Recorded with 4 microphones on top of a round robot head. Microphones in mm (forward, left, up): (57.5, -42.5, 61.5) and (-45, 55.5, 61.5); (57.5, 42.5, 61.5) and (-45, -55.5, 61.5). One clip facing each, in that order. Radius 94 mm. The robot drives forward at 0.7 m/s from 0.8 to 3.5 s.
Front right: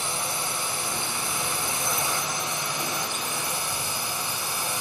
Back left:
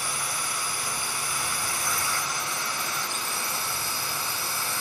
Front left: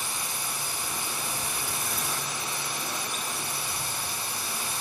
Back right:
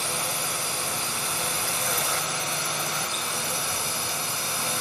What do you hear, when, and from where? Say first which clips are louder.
0.0 s a drone: front right 3 dB, back right 5 dB; 110° right; by 4.8 s 115° right